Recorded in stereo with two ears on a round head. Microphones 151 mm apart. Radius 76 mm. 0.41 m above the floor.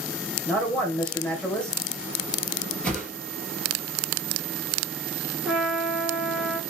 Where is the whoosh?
5° left (ahead or behind), 3 m.